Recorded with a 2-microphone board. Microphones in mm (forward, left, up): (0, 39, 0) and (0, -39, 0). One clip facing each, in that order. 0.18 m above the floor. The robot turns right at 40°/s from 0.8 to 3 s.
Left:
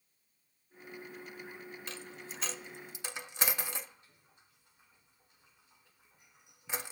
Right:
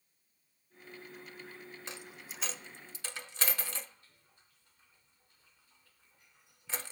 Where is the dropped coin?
20° right (ahead or behind), 0.8 m; by 6.9 s 20° left (ahead or behind), 0.8 m.